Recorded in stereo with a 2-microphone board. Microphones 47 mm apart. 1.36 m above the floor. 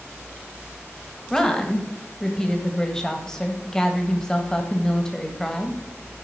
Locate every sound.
1.3 s a woman speaking: 10° left (ahead or behind), 1.7 m